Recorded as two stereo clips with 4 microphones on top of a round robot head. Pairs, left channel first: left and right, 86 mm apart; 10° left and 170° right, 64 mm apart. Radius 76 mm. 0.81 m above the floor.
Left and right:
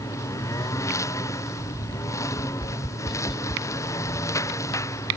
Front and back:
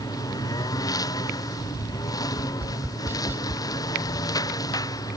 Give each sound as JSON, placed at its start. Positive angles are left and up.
{"t": 0.0, "sound": "a lawn mower", "azimuth_deg": 35}
{"t": 2.3, "sound": "tapping", "azimuth_deg": 135}